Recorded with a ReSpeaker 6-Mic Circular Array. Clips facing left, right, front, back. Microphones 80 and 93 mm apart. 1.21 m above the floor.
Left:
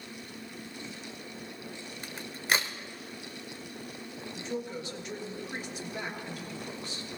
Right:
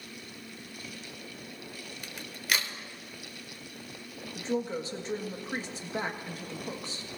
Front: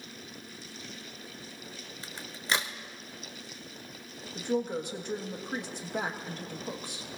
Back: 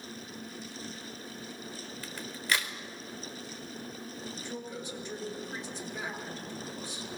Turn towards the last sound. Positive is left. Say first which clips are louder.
# right 5 dB, front 14 dB
turn(degrees=-35)